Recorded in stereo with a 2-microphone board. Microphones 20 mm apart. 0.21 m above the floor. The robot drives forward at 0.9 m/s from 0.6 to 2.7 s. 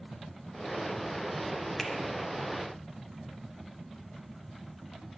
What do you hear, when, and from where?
1.8 s a finger snap: 15° left (ahead or behind), 0.9 m; by 1.9 s 10° left (ahead or behind), 0.9 m